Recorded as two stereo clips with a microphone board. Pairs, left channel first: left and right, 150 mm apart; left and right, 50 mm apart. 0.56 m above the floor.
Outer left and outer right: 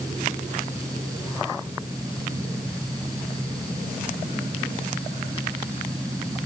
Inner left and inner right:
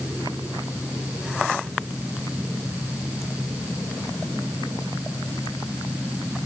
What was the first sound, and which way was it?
Only background noise.